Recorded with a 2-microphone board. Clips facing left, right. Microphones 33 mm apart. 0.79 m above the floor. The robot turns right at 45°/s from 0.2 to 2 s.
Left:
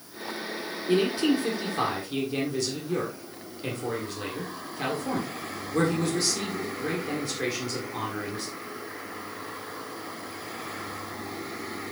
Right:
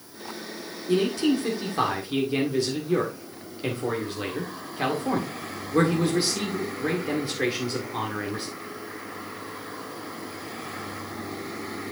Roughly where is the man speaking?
Behind left.